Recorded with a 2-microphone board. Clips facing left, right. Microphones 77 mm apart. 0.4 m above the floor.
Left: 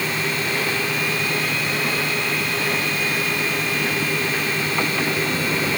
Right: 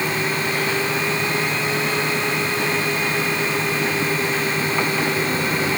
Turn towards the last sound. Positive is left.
No sound to turn to.